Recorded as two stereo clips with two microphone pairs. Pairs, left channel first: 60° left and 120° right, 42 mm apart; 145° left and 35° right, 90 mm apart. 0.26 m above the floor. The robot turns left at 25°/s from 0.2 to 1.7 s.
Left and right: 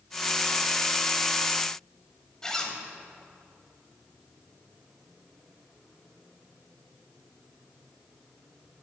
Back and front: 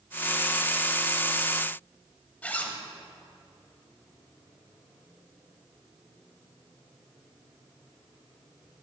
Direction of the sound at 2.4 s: 115° left.